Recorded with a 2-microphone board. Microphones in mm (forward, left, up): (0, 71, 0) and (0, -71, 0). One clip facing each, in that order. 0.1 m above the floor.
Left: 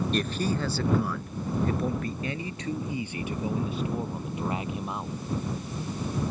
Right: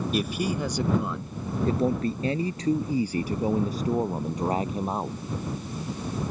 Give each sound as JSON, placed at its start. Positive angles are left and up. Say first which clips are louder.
{"t": 0.1, "sound": "a man speaking", "louder": "right 1 dB", "side_deg": -10}